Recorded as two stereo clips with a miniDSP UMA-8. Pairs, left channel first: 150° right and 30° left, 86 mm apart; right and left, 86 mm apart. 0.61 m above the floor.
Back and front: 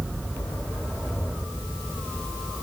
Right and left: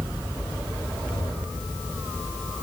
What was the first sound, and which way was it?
Only background noise.